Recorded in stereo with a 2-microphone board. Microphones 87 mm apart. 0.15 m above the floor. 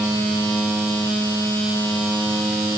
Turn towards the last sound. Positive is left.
No sound to turn to.